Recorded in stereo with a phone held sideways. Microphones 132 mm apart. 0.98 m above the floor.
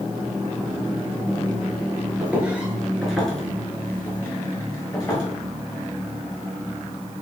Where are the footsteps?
10° right (ahead or behind), 1.0 m; by 5.2 s 25° left (ahead or behind), 1.3 m.